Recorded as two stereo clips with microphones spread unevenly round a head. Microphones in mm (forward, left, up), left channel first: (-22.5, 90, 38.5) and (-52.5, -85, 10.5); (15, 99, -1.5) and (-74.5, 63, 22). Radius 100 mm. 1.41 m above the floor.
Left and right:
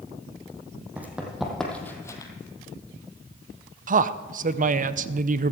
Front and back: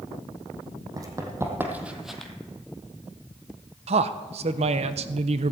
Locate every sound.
1.0 s running footsteps: 175° left, 2.5 m; by 2.3 s 120° left, 1.7 m
3.9 s a man speaking: 150° right, 0.6 m